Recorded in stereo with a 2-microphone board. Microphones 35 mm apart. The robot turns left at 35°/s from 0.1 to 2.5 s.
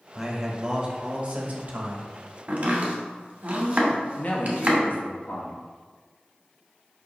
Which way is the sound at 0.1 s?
10° right.